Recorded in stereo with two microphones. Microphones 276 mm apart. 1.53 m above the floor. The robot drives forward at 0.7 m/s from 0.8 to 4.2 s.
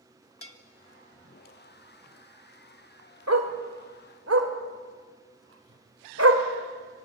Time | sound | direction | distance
0.4 | a bell | 50° left (ahead or behind) | 1.5 m
3.3 | a dog barking | 65° right (ahead or behind) | 2.5 m